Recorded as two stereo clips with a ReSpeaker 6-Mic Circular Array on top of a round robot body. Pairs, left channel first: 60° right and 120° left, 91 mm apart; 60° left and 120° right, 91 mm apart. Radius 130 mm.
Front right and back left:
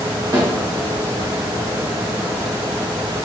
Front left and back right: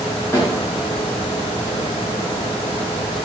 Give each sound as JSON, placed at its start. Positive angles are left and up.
{"t": 0.3, "sound": "a snare drum", "azimuth_deg": 105, "distance_m": 1.9}